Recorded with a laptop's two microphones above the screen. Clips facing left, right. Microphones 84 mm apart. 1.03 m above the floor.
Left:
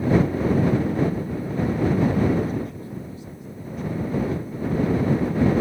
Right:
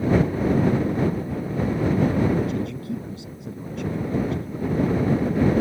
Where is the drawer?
No drawer in this recording.